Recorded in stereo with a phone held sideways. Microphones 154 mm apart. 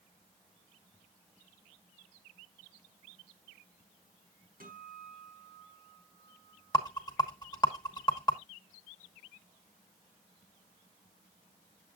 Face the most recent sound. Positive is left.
turn(degrees=25)  # may be behind; listen again after turning